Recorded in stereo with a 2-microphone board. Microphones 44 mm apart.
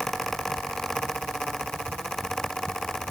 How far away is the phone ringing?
No phone ringing in this recording.